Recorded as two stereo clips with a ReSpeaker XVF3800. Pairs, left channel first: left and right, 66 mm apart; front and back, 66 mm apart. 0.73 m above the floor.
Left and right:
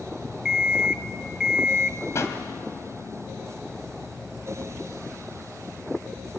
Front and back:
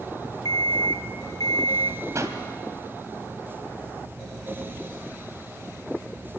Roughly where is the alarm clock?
Ahead.